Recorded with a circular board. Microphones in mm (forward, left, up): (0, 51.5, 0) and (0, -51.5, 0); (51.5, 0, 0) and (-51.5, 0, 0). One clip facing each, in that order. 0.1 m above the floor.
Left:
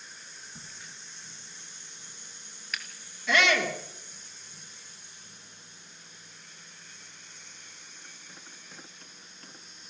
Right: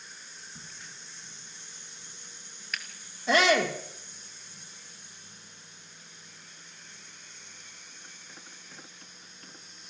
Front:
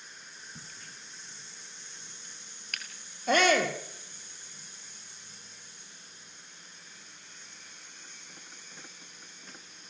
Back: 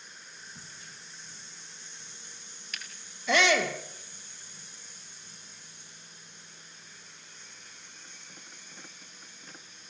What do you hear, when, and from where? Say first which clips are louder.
0.6 s a crack: even, even; straight ahead, 3 m
3.3 s a shout: right 3 dB, front 1 dB; 40° right, 3.5 m